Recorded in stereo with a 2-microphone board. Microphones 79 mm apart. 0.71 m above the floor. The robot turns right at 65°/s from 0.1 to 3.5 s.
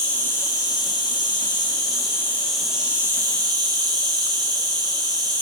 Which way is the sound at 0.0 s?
15° left.